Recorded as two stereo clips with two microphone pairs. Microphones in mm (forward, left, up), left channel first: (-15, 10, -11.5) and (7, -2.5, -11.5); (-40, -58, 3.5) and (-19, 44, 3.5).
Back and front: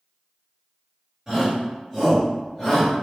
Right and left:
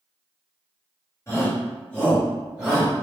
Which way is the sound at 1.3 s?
80° right.